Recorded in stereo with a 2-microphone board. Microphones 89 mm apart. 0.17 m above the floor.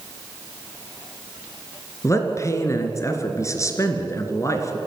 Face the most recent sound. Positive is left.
turn(degrees=35)  # may be behind; listen again after turning